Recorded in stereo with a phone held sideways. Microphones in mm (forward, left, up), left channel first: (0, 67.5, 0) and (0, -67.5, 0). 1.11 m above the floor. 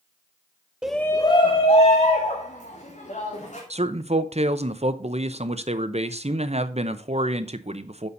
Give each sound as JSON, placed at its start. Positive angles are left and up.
{"t": 0.8, "sound": "a shout", "side_deg": -5, "distance_m": 0.6}
{"t": 3.7, "sound": "a man speaking", "side_deg": -50, "distance_m": 0.7}